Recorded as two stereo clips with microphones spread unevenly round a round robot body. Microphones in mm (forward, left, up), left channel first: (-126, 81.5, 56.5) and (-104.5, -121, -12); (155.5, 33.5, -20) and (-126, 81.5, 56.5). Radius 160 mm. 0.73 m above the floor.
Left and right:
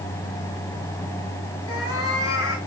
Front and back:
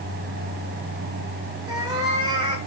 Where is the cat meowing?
95° left, 4 m.